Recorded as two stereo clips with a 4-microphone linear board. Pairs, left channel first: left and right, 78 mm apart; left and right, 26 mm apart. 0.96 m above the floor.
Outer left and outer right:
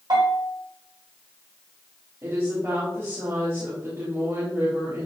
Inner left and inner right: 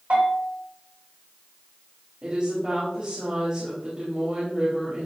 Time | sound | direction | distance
0.1 | a bell | 70° right (ahead or behind) | 3 m
2.2 | a woman speaking | 45° right (ahead or behind) | 3 m